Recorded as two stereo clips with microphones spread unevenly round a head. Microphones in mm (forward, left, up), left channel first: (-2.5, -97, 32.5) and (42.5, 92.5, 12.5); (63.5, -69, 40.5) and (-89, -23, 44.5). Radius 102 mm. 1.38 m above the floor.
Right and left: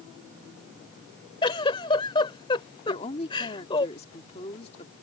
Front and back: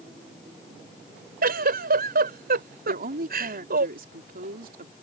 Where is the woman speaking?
165° right.